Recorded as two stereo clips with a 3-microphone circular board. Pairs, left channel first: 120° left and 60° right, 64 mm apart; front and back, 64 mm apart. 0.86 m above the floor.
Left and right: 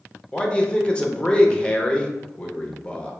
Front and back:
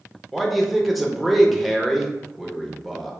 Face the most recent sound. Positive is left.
turn(degrees=95)